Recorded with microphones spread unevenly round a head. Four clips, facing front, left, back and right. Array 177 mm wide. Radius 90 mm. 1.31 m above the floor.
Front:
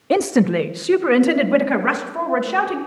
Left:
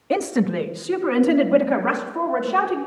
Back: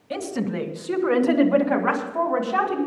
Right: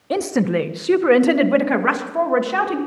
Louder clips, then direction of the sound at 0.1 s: Right 2 dB, front 11 dB; 10° left.